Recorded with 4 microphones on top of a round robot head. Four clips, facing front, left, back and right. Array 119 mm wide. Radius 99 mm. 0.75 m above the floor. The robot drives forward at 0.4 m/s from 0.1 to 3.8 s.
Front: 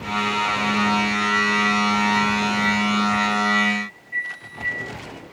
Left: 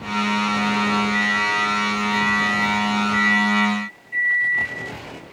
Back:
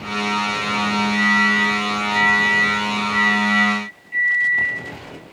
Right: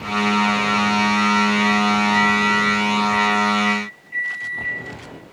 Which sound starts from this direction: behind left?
A microwave, at 1.1 s.